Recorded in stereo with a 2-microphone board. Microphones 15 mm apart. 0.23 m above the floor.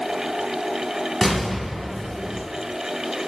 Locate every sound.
1.2 s an explosion: 10° right (ahead or behind), 1.2 m